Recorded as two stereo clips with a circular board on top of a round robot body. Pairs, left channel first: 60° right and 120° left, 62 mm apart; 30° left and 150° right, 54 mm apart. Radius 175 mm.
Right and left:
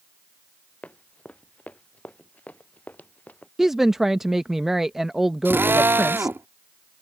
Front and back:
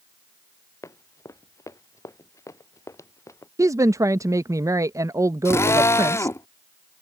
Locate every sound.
0.8 s running footsteps: 10° left; by 3.5 s 5° left
3.6 s a woman speaking: 155° right
5.5 s a drill: 65° left